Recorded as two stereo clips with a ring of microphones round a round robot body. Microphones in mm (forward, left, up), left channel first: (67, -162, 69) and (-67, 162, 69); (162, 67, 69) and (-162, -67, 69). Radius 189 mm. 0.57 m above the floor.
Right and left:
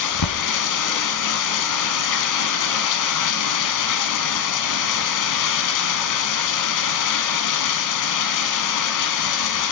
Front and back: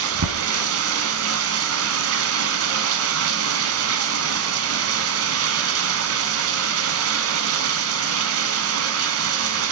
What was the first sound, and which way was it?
Running water, 105° right.